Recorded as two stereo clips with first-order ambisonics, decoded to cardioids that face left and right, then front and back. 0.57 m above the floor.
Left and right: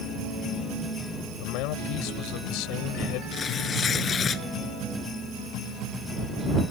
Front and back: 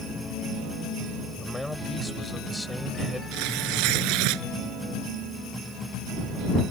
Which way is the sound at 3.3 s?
155° left.